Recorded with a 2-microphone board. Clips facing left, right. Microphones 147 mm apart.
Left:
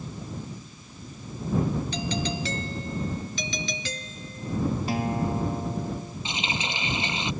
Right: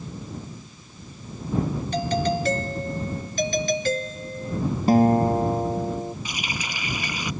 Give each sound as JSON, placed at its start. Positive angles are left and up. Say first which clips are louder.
{"t": 1.9, "sound": "a doorbell", "louder": "right 6 dB", "side_deg": -50}
{"t": 4.9, "sound": "a guitar", "louder": "right 10 dB", "side_deg": -45}
{"t": 6.2, "sound": "a running tap", "louder": "left 1 dB", "side_deg": 25}